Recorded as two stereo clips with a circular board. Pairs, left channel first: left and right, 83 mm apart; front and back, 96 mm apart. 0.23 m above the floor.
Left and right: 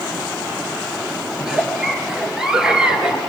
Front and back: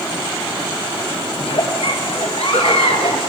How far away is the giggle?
About 2.5 m.